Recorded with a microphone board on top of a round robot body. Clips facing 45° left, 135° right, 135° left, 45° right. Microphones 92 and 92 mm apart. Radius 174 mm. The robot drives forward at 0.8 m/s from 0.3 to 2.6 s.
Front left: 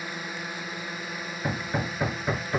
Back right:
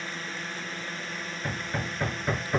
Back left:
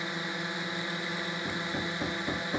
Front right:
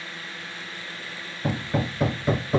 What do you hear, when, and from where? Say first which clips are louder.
0.0 s a drone: front left 1 dB, back left 4 dB; 110° left; by 2.6 s 115° left
1.4 s hammering: front left 4 dB, front right 12 dB; 30° right; by 2.6 s 50° right